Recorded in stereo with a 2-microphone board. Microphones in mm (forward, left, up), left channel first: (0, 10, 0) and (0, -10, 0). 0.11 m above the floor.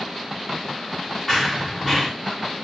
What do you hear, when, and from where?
1.3 s running footsteps: 15° left (ahead or behind), 0.8 m